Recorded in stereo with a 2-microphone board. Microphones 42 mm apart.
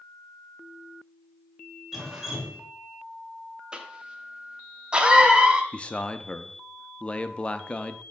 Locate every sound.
1.9 s dripping: 10° right (ahead or behind), 1.9 m
3.7 s a cough: 25° right (ahead or behind), 1.1 m
5.7 s a man speaking: 25° left (ahead or behind), 0.6 m